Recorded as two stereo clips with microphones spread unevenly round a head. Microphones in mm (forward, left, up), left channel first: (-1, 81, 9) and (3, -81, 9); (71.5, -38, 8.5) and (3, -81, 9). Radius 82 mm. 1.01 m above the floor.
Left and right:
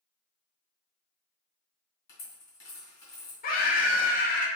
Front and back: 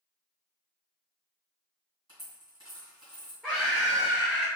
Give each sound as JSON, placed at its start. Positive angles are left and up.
{"t": 2.1, "sound": "a dropped coin", "azimuth_deg": 100, "distance_m": 1.9}
{"t": 3.4, "sound": "a scream", "azimuth_deg": 120, "distance_m": 0.8}